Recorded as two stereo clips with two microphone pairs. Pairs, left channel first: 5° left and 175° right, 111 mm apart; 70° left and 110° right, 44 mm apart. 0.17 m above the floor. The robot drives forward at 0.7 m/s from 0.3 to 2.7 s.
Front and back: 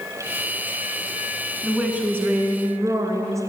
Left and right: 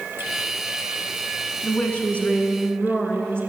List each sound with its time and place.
1.6 s a woman speaking: 105° left, 1.7 m; by 3.4 s 130° left, 2 m